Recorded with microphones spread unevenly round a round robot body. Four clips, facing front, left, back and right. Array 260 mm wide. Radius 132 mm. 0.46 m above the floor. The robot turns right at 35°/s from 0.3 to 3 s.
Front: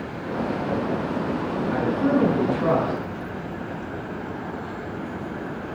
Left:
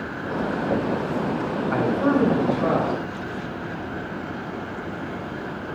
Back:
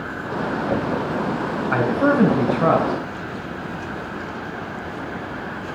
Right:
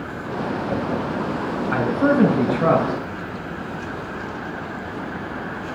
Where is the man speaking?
175° left, 3.5 m; by 2.9 s 140° right, 3.5 m.